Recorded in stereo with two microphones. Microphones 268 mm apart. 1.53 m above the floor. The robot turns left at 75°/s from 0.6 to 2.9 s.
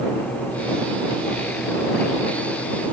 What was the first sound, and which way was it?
Only background noise.